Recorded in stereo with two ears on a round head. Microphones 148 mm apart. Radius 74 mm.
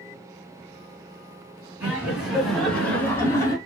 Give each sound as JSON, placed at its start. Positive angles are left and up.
{"t": 1.8, "sound": "laughter", "side_deg": -10, "distance_m": 3.0}